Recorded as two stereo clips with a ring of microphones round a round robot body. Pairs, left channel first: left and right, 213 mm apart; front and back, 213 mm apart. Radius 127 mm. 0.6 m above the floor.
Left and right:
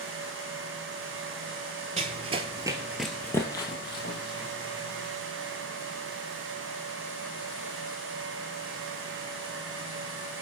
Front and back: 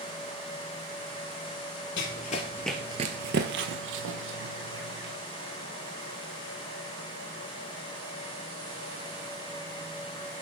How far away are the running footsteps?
About 0.9 m.